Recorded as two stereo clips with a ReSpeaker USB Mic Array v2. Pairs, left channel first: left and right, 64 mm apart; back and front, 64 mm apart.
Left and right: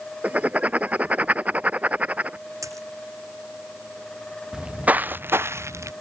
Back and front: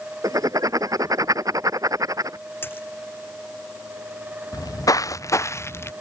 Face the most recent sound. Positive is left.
turn(degrees=-130)